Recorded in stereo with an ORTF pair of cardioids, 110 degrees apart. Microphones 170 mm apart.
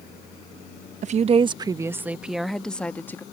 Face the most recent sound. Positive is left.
turn(degrees=15)